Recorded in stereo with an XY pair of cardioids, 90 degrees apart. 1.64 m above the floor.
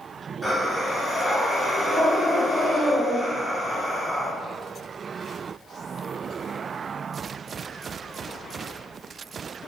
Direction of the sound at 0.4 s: 10° right.